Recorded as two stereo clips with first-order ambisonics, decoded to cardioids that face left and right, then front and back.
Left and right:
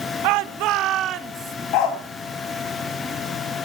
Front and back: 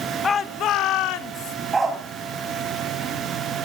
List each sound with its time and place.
0.2 s a shout: 75° right, 1.1 m; by 1.6 s 30° right, 2 m
1.7 s a dog barking: 105° left, 4 m